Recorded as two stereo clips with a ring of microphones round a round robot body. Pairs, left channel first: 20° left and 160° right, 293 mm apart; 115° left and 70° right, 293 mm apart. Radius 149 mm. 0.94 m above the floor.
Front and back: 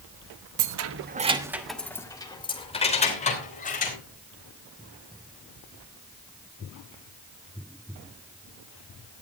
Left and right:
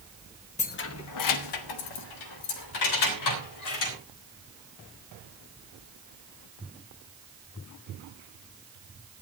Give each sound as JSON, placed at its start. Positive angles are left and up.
{"t": 0.6, "sound": "keys jangling", "azimuth_deg": 180, "distance_m": 1.1}